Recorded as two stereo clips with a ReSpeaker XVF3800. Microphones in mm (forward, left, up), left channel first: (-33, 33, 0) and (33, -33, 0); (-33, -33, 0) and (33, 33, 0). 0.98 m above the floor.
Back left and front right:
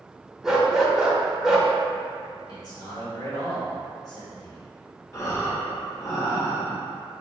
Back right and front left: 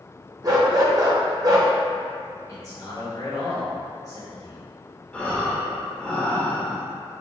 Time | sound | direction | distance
0.4 | a dog barking | 35° left | 0.6 m
2.5 | a man speaking | 175° left | 1.6 m
5.1 | breathing | 155° left | 0.7 m